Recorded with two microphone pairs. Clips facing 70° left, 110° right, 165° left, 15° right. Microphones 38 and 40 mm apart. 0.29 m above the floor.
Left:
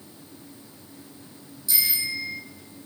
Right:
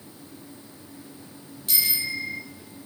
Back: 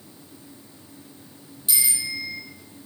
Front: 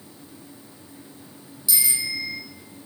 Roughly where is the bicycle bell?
Behind right.